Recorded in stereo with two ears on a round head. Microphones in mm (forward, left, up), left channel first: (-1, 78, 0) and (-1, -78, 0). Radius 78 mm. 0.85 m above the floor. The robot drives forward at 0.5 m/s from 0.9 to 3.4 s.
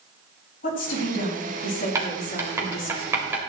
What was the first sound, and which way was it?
A woman speaking, 50° left (ahead or behind).